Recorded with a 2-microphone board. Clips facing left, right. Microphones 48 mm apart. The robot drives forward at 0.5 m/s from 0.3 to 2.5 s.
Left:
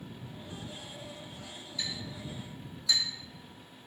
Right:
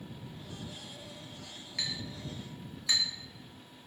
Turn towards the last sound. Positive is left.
turn(degrees=-55)  # may be behind; listen again after turning